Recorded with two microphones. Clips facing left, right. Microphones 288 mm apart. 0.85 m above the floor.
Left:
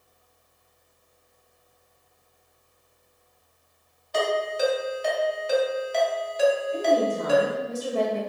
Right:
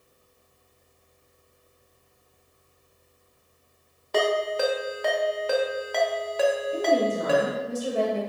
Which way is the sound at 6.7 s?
15° right (ahead or behind).